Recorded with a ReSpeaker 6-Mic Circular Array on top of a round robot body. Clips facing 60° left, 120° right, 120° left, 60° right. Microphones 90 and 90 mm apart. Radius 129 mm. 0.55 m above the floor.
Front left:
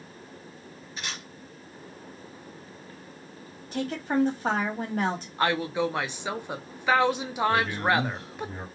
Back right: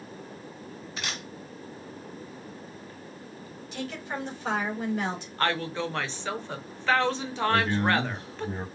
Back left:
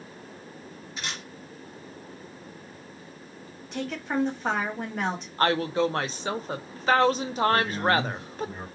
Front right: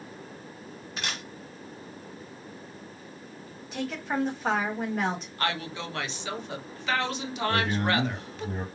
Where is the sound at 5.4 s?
130° left, 0.9 m.